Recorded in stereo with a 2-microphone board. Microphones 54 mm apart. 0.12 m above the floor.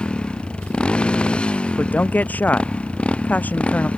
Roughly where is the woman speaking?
Left.